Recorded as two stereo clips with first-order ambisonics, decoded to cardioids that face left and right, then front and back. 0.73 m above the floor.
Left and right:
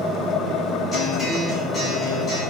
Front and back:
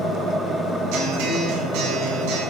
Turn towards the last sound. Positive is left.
turn(degrees=160)